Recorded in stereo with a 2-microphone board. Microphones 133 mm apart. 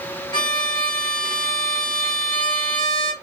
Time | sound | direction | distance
0.3 | a violin | 35° left (ahead or behind) | 1.1 m